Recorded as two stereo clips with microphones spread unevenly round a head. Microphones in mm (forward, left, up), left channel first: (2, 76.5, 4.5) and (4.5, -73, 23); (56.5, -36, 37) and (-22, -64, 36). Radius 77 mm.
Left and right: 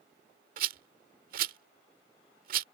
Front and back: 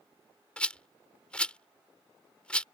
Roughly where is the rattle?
Ahead right.